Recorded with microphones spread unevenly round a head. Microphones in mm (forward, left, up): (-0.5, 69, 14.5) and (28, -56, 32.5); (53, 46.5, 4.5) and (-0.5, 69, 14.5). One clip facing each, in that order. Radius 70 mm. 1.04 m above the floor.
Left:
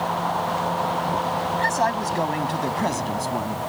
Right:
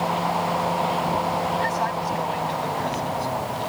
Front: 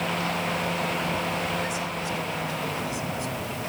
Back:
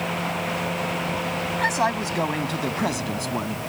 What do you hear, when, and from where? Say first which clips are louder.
1.6 s a man speaking: left 2 dB, back 7 dB; 145° left